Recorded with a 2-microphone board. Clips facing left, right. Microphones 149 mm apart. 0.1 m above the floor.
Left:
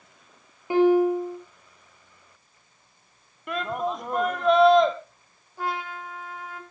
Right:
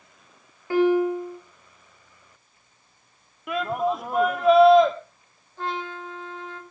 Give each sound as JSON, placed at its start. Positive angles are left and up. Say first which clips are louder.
{"t": 0.7, "sound": "a piano", "louder": "left 1 dB", "side_deg": 15, "distance_m": 6.5}
{"t": 3.5, "sound": "a shout", "louder": "right 3 dB", "side_deg": -5, "distance_m": 2.5}
{"t": 5.6, "sound": "a trumpet", "louder": "even", "side_deg": 10, "distance_m": 2.5}